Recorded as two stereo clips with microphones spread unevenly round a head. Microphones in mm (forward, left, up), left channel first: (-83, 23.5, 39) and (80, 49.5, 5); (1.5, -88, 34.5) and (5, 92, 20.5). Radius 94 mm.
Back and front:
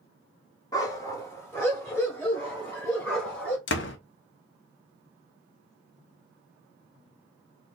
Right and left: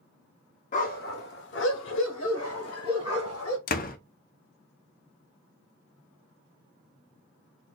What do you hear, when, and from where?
0.7 s a dog barking: 115° right, 0.7 m; by 3.6 s 90° right, 2 m
3.7 s a door slam: 140° right, 0.6 m